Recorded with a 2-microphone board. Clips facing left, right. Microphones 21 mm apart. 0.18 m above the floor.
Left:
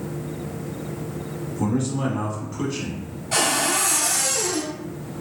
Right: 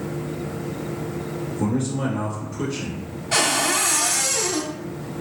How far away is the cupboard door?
About 0.7 m.